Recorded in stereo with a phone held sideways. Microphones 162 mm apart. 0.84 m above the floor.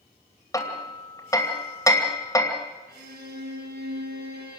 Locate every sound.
0.5 s hammering: 20° left (ahead or behind), 2.5 m
2.9 s a violin: 80° right, 7.5 m